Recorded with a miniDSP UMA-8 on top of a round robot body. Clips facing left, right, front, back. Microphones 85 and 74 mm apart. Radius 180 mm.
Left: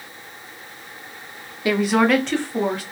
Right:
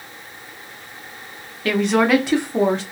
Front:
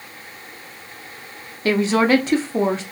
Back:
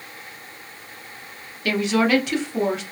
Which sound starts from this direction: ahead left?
A woman speaking, at 1.6 s.